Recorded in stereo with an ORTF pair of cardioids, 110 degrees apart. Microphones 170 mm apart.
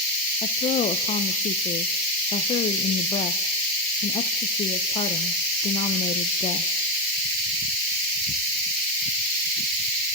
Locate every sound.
0.4 s a woman speaking: 40° left, 0.8 m